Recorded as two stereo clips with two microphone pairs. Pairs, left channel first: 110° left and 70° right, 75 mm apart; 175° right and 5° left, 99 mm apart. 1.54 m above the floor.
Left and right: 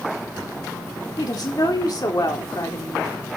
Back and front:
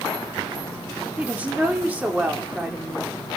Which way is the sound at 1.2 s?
80° left.